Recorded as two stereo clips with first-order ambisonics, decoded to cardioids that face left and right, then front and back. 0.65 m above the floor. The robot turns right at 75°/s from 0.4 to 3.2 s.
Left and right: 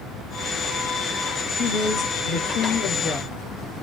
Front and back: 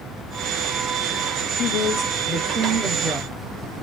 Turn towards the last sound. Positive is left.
turn(degrees=135)